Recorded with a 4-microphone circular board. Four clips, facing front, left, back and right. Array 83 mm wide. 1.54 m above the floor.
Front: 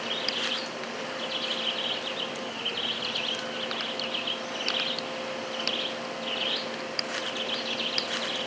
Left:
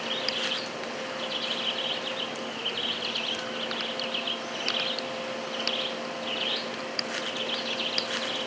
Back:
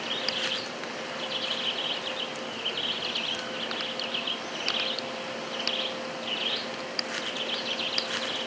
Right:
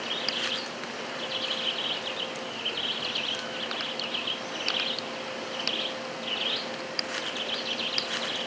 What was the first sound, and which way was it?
Only background noise.